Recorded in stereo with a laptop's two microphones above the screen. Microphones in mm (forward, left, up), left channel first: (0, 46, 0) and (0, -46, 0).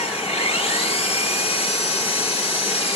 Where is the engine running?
85° left, 1.3 m.